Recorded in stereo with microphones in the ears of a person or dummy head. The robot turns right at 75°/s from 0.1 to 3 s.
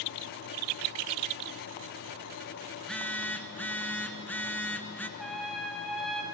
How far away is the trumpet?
About 3 m.